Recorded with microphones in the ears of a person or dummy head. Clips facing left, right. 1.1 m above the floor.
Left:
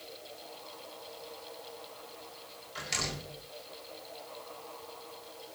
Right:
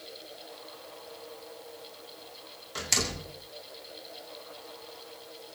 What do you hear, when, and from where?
2.8 s a door slam: 60° right (ahead or behind), 4.5 m